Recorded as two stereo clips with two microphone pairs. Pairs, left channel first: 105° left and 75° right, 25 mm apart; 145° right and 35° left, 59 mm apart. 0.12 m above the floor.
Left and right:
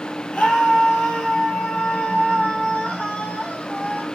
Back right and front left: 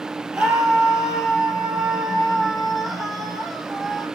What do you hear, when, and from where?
0.3 s a scream: 105° left, 5 m; by 4.0 s 130° left, 7.5 m